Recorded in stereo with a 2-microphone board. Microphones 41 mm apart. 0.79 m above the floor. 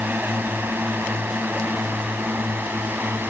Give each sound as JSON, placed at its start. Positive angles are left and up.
{"t": 0.0, "sound": "a drone", "side_deg": -60}